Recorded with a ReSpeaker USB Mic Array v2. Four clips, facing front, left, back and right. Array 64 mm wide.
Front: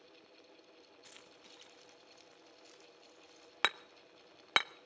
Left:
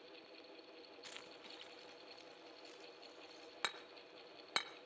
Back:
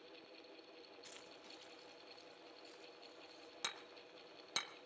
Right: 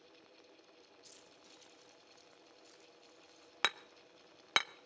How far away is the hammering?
About 0.6 m.